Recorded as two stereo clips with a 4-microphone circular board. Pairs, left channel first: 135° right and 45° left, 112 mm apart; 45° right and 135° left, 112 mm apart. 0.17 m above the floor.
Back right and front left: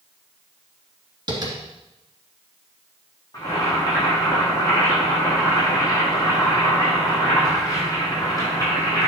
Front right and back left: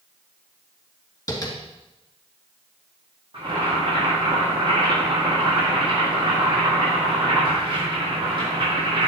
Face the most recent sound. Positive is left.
turn(degrees=170)